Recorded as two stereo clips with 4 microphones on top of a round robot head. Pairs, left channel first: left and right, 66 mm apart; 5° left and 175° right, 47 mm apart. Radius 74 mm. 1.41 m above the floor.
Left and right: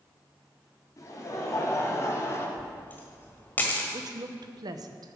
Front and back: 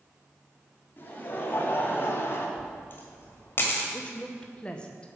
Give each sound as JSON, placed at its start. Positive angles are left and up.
{"t": 1.0, "sound": "laughter", "azimuth_deg": 50, "distance_m": 4.0}
{"t": 2.6, "sound": "a dropped coin", "azimuth_deg": 35, "distance_m": 1.6}
{"t": 3.9, "sound": "a woman speaking", "azimuth_deg": -70, "distance_m": 1.0}